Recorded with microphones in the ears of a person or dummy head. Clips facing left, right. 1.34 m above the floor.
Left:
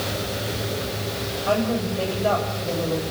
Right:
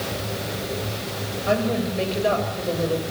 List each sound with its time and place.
1.5 s a woman speaking: 25° right (ahead or behind), 7 m; by 3.0 s 35° right (ahead or behind), 6 m